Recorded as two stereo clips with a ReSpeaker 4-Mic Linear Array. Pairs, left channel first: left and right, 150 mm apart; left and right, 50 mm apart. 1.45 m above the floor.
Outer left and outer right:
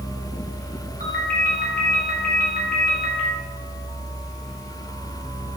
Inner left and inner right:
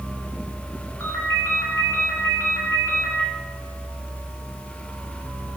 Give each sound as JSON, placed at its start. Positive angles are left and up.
{"t": 1.0, "sound": "a ringtone", "side_deg": 75, "distance_m": 2.0}